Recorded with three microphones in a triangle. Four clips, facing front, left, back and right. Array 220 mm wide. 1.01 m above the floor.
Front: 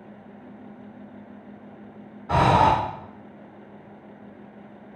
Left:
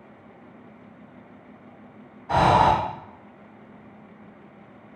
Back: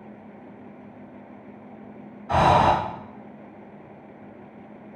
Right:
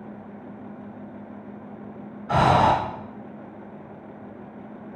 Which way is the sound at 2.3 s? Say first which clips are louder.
Left 1 dB, even; 15° right.